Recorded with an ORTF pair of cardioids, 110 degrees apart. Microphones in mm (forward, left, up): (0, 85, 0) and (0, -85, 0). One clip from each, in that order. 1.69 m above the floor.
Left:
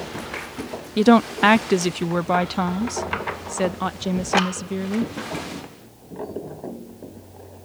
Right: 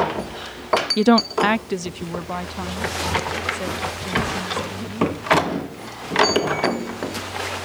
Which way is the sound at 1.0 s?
Straight ahead.